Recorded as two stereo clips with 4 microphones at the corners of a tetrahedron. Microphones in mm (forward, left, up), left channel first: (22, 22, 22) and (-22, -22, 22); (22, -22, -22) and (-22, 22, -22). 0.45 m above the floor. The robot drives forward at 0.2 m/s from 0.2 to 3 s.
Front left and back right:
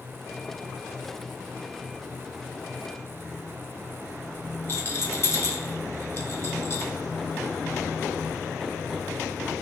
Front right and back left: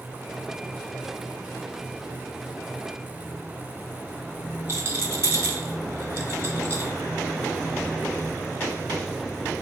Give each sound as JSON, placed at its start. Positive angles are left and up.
{"t": 4.7, "sound": "a rattle", "azimuth_deg": 90, "distance_m": 0.6}